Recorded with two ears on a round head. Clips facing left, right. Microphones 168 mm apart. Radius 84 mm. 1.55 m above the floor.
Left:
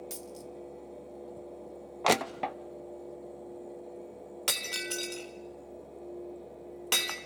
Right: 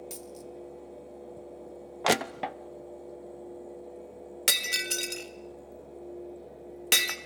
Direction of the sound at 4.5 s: 25° right (ahead or behind).